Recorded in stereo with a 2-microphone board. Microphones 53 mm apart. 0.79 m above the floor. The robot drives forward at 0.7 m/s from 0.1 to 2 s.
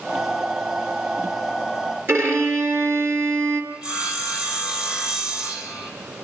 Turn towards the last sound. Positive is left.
turn(degrees=-15)  # may be behind; listen again after turning